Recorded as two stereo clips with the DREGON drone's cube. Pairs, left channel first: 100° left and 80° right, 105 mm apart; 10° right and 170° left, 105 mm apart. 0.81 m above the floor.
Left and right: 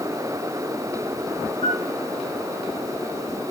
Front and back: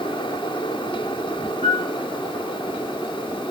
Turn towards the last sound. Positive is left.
turn(degrees=125)